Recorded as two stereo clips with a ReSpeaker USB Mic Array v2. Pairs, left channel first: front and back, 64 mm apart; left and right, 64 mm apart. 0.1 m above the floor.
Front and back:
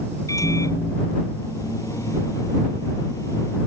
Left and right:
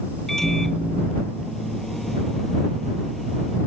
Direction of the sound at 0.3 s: 5° left.